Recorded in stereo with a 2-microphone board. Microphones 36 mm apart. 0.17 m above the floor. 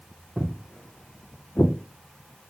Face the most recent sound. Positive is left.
turn(degrees=75)  # may be behind; listen again after turning